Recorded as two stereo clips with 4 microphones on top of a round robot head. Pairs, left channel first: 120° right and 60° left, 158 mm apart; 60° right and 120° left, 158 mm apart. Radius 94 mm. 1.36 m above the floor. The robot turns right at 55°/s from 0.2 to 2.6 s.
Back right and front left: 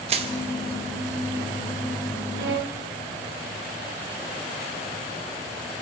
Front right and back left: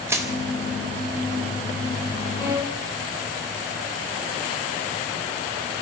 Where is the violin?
40° left, 2.5 m; by 2.8 s 55° left, 2.5 m.